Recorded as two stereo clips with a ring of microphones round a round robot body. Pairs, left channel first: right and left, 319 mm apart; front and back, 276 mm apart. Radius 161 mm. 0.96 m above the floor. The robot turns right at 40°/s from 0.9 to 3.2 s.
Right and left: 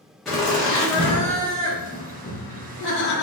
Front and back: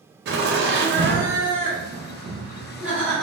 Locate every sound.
0.2 s laughter: straight behind, 0.5 m; by 3.2 s 85° right, 0.5 m